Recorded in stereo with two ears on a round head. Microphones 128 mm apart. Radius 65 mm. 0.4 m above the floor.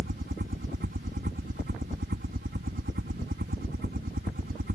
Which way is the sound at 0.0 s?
60° right (ahead or behind).